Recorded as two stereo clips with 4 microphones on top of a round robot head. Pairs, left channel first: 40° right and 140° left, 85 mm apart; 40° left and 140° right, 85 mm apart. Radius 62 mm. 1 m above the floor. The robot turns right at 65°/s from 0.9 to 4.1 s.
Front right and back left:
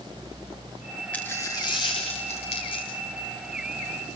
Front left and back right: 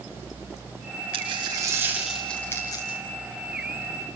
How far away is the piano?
I don't hear a piano.